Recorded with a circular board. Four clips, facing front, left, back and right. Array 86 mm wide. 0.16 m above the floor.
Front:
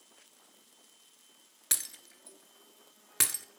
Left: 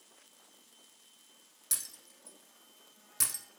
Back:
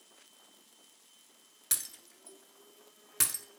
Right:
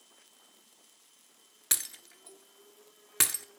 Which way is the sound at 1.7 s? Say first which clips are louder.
Right 9 dB, front 3 dB; 65° right.